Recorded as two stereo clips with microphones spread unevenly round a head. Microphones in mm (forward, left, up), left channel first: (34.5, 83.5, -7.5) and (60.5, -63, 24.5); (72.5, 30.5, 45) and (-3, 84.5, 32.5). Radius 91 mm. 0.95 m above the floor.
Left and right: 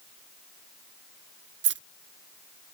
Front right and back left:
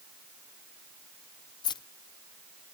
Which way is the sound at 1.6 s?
95° right.